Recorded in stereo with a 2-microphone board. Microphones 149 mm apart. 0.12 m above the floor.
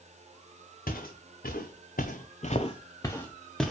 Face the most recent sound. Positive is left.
turn(degrees=0)  # may be behind; listen again after turning